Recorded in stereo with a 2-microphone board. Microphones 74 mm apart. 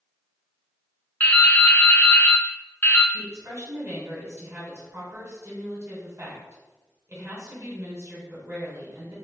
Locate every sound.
1.2 s dripping: 25° left (ahead or behind), 0.6 m
3.1 s a woman speaking: 35° right (ahead or behind), 1.5 m